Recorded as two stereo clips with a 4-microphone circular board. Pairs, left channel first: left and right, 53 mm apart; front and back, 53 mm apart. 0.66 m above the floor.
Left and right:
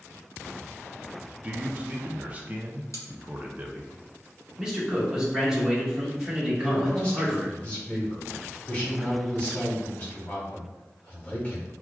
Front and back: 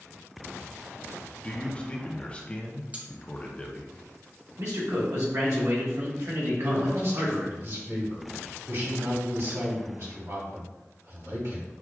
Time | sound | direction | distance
1.4 | a man speaking | 45° right | 0.6 m
2.9 | cutlery clinking | 120° left | 0.7 m
4.6 | a man speaking | 170° right | 1.4 m
6.6 | a man speaking | 155° left | 2.0 m